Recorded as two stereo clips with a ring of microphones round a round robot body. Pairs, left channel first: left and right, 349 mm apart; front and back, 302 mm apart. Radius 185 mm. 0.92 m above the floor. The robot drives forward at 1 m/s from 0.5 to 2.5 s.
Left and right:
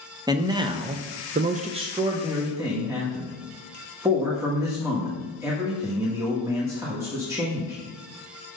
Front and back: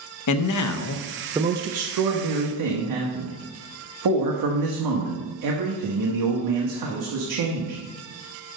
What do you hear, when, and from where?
0.3 s a man speaking: 10° right, 0.9 m; by 7.8 s 170° right, 1.3 m